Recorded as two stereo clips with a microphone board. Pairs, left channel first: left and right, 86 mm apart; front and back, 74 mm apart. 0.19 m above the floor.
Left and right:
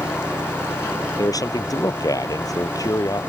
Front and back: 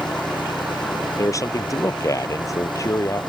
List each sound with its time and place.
0.0 s an engine running: 10° right
1.2 s a man speaking: 45° left